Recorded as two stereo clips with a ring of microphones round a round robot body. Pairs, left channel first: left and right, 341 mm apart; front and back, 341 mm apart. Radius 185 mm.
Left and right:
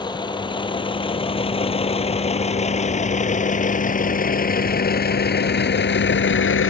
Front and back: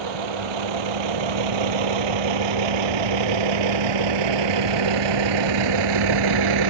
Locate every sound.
0.0 s a vehicle: 165° left; by 6.7 s 145° left